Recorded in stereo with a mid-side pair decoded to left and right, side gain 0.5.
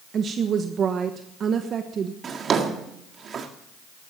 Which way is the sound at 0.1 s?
50° right.